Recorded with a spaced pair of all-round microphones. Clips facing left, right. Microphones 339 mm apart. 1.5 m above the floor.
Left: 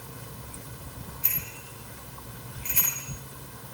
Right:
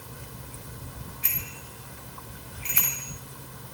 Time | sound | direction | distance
1.2 | a bicycle bell | 75° right (ahead or behind) | 8 m